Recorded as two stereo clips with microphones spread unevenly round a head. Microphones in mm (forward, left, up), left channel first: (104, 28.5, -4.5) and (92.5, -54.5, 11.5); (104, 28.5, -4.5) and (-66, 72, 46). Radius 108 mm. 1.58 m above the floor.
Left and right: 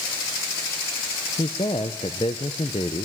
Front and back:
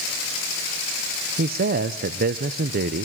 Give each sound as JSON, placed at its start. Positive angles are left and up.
{"t": 1.4, "sound": "a man speaking", "azimuth_deg": 140, "distance_m": 0.7}